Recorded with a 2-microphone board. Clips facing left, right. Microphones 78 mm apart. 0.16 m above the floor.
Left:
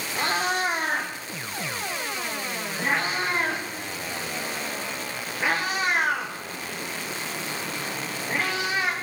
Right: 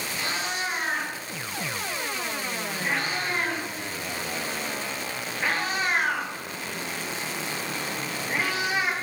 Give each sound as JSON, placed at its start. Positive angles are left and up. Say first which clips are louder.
{"t": 0.1, "sound": "a cat meowing", "louder": "left 7 dB", "side_deg": 45, "distance_m": 5.0}